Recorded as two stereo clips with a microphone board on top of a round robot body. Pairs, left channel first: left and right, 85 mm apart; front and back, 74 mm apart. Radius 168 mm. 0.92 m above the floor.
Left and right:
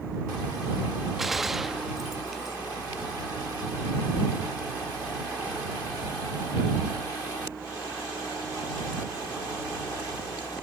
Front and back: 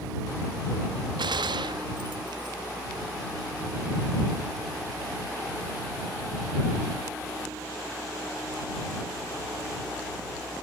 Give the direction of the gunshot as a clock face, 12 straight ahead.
6 o'clock.